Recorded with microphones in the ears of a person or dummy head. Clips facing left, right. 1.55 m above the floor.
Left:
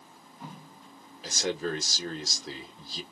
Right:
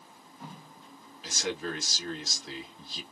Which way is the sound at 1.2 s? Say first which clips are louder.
Left 3 dB; 40° left (ahead or behind).